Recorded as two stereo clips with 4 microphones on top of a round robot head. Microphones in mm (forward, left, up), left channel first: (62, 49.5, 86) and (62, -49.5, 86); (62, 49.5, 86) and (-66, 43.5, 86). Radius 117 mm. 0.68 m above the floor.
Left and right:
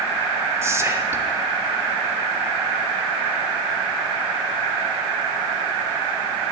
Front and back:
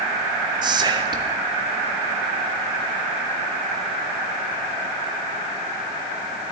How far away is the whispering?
About 1.5 m.